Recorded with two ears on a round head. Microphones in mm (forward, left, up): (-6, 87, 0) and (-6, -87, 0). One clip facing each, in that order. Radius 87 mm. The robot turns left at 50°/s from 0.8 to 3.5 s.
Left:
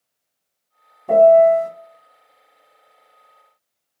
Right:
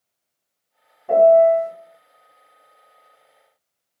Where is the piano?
130° left, 0.9 m; by 1.7 s 100° left, 0.9 m.